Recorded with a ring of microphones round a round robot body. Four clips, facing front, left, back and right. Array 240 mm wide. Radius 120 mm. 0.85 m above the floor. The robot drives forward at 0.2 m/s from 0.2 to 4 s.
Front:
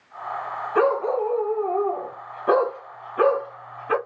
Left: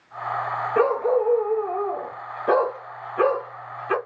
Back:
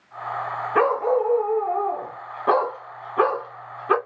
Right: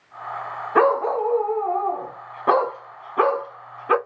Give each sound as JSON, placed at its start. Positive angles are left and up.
{"t": 0.8, "sound": "a dog barking", "azimuth_deg": -110, "distance_m": 1.6}